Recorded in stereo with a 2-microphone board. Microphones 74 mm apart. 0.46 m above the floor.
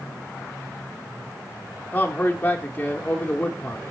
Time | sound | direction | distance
1.9 | a man speaking | 20° left (ahead or behind) | 0.8 m